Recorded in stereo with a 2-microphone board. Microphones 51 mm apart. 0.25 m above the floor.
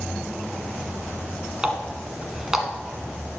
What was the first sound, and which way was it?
A running tap, 10° right (ahead or behind).